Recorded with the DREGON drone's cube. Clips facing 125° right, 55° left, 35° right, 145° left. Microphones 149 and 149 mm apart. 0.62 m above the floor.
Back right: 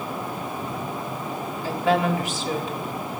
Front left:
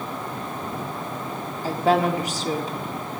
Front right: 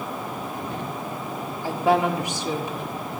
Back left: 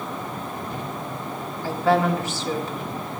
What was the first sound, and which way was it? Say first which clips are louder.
A woman speaking: front left 2 dB, back left 1 dB; 30° left.